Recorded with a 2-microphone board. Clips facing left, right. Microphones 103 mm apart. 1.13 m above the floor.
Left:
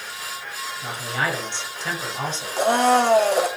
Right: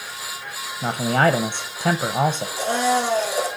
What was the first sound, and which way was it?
A man speaking, 45° right (ahead or behind).